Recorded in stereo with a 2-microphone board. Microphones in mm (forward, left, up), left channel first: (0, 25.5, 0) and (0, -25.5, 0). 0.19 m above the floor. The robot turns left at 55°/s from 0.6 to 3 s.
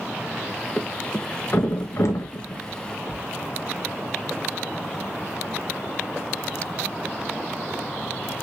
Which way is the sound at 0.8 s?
10° left (ahead or behind).